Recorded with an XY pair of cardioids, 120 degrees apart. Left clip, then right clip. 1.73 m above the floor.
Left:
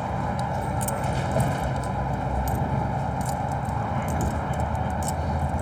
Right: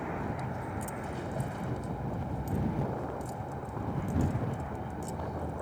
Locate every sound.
0.0 s a vehicle: 70° left